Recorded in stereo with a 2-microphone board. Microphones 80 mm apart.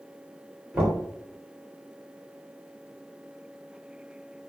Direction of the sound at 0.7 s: 10° right (ahead or behind).